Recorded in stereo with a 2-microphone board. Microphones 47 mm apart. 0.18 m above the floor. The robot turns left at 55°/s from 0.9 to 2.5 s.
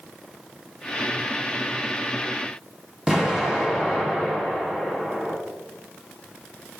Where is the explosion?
10° right (ahead or behind), 0.8 m.